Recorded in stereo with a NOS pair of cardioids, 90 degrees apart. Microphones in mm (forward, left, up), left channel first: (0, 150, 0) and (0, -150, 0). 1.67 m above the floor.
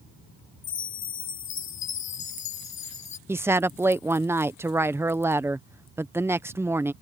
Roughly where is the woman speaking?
Ahead.